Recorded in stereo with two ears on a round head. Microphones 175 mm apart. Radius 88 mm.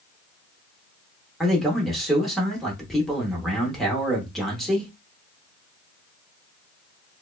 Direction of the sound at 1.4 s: Centre (ahead or behind).